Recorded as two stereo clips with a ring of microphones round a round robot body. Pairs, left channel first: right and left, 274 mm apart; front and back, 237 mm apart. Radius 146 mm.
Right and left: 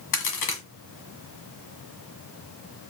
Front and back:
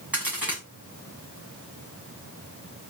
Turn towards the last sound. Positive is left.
turn(degrees=-95)